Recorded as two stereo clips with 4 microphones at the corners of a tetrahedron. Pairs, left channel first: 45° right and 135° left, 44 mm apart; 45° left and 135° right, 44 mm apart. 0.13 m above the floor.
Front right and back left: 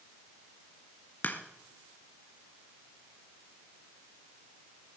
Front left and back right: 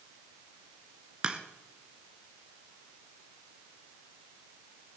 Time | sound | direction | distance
1.2 | a crack | 70° right | 1.4 m